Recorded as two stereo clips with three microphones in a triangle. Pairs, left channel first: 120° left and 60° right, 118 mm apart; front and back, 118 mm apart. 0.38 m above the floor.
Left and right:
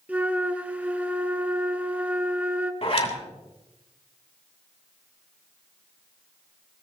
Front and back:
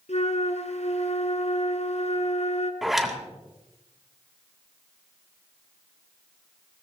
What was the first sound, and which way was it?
A flute, 20° left.